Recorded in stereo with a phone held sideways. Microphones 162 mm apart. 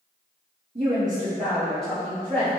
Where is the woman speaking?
40° right (ahead or behind), 0.6 m; by 2.5 s 10° left (ahead or behind), 1.7 m.